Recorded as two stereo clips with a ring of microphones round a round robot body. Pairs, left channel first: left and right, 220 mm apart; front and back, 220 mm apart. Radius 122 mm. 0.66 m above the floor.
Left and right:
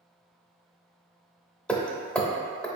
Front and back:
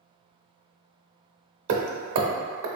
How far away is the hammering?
About 0.6 m.